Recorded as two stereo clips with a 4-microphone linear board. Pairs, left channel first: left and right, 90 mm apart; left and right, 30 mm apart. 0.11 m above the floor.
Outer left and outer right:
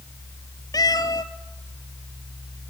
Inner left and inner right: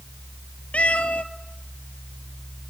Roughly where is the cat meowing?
Left.